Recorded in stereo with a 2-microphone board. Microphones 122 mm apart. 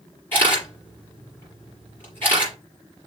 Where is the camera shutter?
15° left (ahead or behind), 5 m.